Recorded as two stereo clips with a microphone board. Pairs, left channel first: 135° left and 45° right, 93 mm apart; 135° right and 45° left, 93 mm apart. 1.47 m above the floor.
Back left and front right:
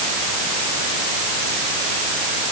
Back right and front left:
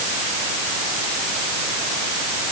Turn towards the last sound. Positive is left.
No sound to turn to.